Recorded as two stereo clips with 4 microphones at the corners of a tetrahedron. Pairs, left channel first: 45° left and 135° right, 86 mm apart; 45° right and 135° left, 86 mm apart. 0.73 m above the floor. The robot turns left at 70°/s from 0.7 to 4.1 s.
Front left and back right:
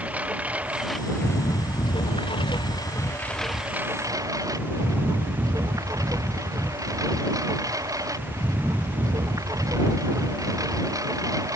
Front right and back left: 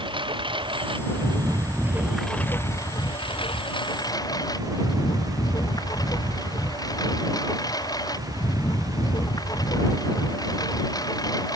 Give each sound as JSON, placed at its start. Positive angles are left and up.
{"t": 0.0, "sound": "a lawn mower", "azimuth_deg": 150}